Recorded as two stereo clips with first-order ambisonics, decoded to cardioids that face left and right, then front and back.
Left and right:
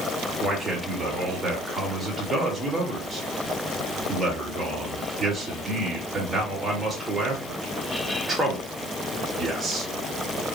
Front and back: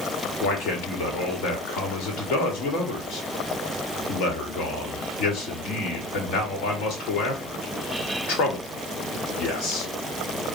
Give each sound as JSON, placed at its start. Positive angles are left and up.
{"t": 0.4, "sound": "a man speaking", "azimuth_deg": -15, "distance_m": 1.4}